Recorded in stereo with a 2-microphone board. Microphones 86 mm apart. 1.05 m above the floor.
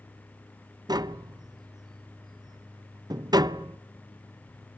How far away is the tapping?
About 0.5 m.